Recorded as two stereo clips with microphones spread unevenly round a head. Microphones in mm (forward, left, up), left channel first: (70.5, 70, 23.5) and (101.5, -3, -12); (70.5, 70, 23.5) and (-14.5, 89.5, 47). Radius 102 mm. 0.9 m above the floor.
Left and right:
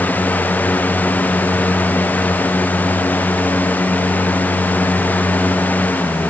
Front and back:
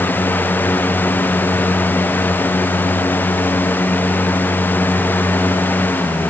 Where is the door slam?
I don't hear a door slam.